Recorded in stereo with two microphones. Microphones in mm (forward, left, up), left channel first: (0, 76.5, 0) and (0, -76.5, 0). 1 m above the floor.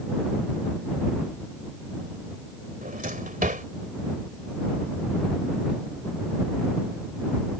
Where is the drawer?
65° right (ahead or behind).